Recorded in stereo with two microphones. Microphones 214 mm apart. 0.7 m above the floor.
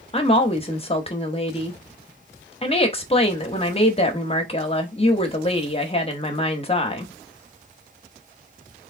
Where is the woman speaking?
30° left (ahead or behind), 0.8 m.